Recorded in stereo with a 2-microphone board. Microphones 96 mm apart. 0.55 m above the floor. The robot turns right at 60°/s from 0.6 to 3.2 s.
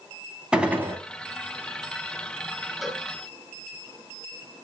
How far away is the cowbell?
About 3 m.